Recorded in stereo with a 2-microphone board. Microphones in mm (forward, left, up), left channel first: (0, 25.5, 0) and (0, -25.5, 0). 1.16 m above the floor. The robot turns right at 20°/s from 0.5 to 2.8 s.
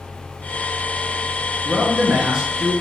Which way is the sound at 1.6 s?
10° right (ahead or behind).